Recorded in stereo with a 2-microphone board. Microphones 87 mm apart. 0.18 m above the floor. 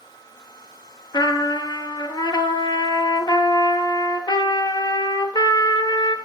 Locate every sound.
1.1 s a trumpet: 55° left (ahead or behind), 1.0 m